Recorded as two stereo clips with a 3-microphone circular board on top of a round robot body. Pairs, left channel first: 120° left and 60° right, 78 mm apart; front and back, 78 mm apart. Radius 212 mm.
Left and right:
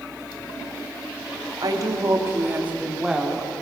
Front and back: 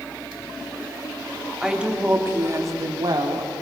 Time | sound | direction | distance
1.6 | a woman speaking | 100° right | 2.5 m